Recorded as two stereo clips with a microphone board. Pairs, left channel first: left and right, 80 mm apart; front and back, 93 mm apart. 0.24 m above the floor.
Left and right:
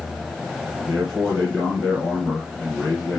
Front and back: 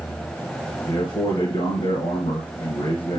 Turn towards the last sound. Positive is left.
turn(degrees=5)